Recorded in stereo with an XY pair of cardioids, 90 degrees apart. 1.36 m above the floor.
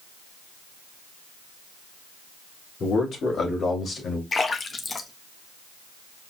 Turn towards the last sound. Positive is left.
turn(degrees=40)